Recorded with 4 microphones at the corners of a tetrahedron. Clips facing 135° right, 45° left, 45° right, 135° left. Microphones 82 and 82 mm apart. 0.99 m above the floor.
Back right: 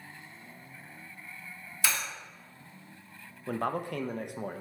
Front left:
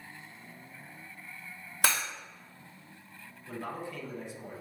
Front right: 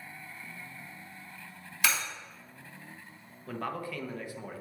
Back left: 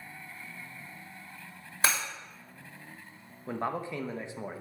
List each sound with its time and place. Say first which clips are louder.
1.8 s breaking glass: front left 3 dB, back left 1 dB; 80° left, 2.0 m
3.5 s a man speaking: back right 7 dB, back left 3 dB; 160° right, 0.6 m